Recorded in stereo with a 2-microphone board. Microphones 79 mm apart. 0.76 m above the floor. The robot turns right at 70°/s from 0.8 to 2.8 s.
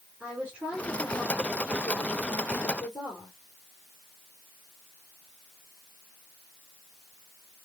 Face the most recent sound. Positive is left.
turn(degrees=120)